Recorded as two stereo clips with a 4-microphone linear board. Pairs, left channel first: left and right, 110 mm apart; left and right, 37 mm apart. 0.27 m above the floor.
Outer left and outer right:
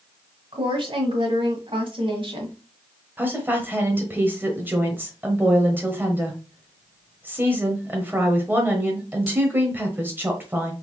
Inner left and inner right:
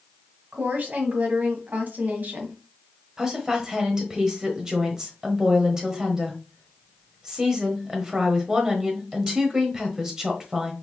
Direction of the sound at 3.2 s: 20° right (ahead or behind).